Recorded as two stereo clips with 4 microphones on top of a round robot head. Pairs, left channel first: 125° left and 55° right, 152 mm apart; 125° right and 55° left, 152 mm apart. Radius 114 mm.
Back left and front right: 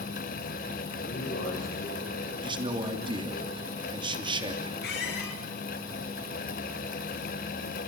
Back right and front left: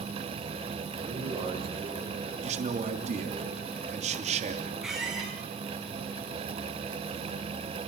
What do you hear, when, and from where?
1.0 s a man speaking: 120° left, 7.5 m; by 3.4 s 130° left, 6.5 m
2.4 s a man speaking: 5° left, 3 m
4.8 s a squeak: 140° left, 7.5 m